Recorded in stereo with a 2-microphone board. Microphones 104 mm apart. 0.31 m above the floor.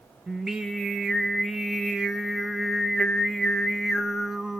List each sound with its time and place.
0.3 s singing: 5° right (ahead or behind), 0.7 m